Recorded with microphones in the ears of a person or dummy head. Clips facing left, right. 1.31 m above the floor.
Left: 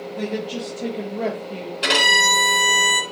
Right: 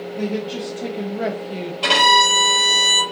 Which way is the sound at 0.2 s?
20° left (ahead or behind).